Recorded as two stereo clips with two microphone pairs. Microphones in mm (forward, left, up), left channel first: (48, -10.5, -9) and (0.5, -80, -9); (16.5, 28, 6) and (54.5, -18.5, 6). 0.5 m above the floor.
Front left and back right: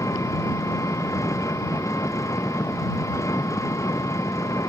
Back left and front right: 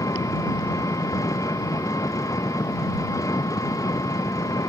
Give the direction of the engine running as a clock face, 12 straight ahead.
8 o'clock.